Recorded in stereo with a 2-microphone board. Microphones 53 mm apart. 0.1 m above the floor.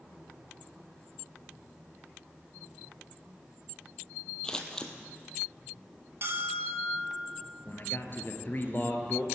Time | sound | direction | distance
4.4 | scissors | 15° left (ahead or behind) | 1.3 m
6.2 | a bell | 55° right (ahead or behind) | 1.9 m
7.7 | a man speaking | 45° left (ahead or behind) | 1.7 m